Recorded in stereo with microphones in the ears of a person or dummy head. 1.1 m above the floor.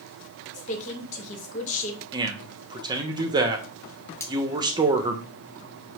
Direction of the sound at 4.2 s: 15° left (ahead or behind).